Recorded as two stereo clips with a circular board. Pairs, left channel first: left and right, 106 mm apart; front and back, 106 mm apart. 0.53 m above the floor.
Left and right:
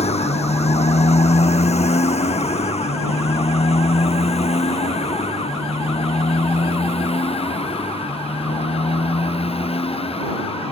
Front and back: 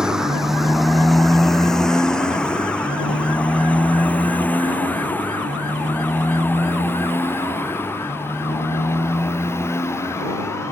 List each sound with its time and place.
0.0 s a motorcycle: 95° left; by 10.7 s 65° left